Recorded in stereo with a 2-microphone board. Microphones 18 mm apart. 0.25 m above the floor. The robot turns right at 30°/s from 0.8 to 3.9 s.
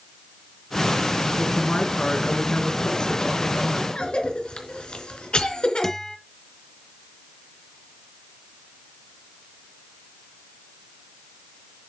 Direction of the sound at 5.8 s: 30° left (ahead or behind).